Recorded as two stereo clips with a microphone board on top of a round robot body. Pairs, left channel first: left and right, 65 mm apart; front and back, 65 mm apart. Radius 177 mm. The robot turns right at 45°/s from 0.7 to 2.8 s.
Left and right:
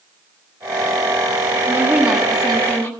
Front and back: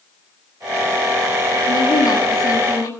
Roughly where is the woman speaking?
Ahead right.